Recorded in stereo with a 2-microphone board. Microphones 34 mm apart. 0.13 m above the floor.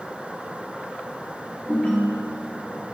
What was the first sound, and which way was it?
A ringtone, 55° left (ahead or behind).